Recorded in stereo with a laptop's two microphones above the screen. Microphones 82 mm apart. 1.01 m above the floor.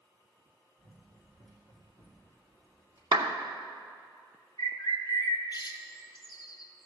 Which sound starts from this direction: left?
A bird, at 4.6 s.